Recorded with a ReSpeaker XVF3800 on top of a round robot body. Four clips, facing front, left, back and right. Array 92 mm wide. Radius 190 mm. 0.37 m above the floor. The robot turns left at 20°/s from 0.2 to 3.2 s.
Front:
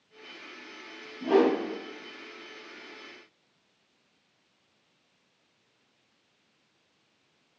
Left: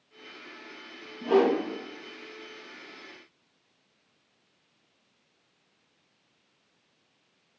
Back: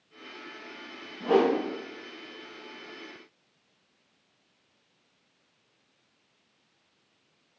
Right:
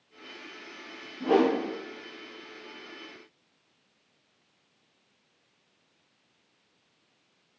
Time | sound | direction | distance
1.2 | a whoosh | 135° right | 0.5 m